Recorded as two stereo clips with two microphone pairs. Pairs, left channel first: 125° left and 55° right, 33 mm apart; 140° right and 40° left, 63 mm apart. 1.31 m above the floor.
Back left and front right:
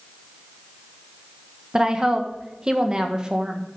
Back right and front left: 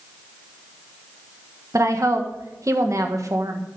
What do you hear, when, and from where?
1.7 s a woman speaking: 10° left, 1.5 m